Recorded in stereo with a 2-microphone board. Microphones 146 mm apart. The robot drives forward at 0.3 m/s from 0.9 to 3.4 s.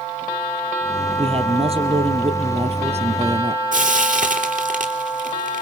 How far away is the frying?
About 4 m.